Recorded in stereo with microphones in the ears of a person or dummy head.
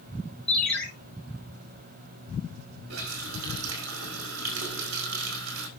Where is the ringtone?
15° left (ahead or behind), 2 m.